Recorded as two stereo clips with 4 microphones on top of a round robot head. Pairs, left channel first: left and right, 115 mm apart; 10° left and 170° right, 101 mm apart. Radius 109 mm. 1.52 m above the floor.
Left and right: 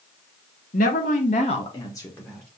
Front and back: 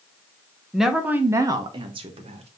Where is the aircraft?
I don't hear an aircraft.